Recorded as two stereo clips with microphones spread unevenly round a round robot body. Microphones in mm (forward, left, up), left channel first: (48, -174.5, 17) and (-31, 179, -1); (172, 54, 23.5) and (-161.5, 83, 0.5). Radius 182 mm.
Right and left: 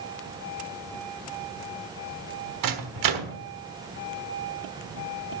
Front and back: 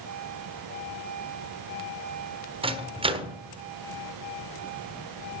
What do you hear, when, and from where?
2.6 s a microwave: 105° left, 1.3 m